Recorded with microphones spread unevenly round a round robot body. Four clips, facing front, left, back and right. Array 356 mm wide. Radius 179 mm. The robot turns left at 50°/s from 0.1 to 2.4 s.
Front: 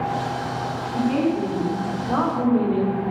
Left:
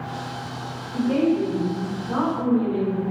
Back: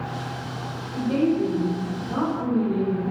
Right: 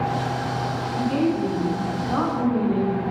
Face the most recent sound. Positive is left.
turn(degrees=-15)